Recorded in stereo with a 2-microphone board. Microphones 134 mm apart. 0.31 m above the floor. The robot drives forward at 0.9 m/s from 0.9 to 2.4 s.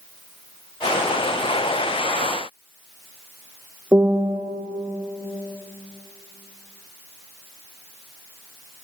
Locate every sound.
3.9 s a piano: 20° right (ahead or behind), 3 m